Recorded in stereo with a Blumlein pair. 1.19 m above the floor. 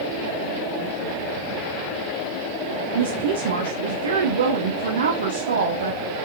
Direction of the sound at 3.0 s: 65° right.